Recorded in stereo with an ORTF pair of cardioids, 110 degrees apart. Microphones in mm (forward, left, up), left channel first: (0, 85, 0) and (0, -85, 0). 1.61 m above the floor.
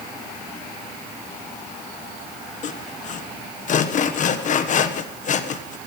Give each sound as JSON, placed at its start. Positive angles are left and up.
{"t": 2.6, "sound": "sawing", "azimuth_deg": 45, "distance_m": 1.3}